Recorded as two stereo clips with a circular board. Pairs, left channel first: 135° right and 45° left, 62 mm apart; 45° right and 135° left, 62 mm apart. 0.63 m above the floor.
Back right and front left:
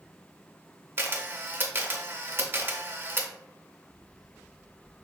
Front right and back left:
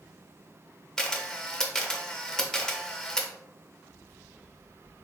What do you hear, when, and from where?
1.0 s a camera shutter: 30° left, 0.5 m